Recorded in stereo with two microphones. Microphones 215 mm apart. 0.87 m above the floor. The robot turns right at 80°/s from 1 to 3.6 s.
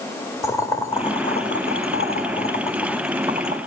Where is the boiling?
15° left (ahead or behind), 2 m; by 3.6 s 40° right (ahead or behind), 2 m.